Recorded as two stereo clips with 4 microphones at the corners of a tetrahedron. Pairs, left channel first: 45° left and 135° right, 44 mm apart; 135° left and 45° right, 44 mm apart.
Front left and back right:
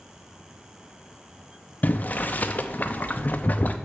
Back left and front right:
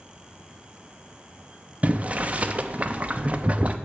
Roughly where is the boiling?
Ahead.